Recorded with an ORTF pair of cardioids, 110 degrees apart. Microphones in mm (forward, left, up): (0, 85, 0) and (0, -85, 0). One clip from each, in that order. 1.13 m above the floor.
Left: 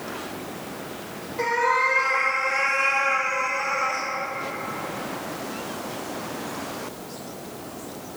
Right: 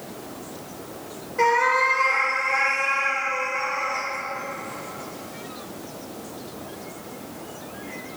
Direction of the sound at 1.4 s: 45° right.